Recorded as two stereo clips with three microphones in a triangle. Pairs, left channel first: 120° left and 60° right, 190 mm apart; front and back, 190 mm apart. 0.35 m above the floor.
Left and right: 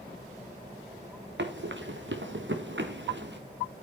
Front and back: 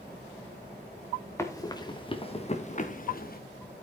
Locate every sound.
1.4 s running footsteps: 75° right, 2 m; by 3.4 s 40° right, 1.8 m